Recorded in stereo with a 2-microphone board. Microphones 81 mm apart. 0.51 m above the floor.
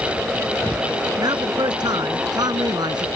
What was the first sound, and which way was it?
A man speaking, 60° right (ahead or behind).